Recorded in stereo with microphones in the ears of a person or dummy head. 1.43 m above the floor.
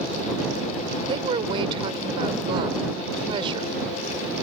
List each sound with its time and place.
1.1 s a woman speaking: 30° right (ahead or behind)